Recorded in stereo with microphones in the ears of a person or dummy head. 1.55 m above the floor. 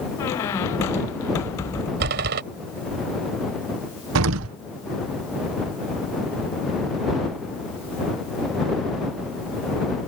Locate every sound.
0.2 s a squeak: 10° left (ahead or behind)
2.0 s a door slam: 65° right (ahead or behind)
4.2 s an explosion: 75° right (ahead or behind)